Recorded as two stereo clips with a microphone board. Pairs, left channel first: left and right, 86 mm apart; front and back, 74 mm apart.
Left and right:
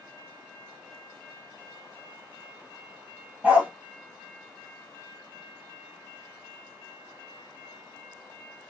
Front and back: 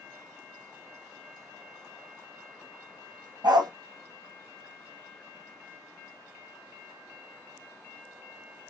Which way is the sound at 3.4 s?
165° right.